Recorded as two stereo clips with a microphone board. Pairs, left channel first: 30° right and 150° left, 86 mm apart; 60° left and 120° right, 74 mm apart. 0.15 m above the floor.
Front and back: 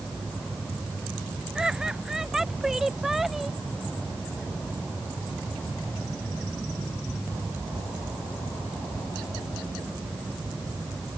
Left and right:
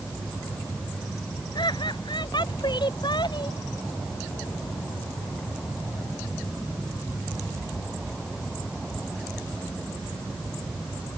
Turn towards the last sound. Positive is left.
turn(degrees=65)